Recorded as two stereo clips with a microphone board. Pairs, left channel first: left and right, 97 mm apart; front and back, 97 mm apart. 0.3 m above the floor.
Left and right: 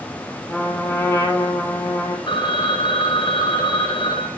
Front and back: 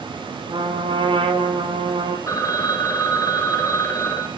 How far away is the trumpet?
About 6.5 m.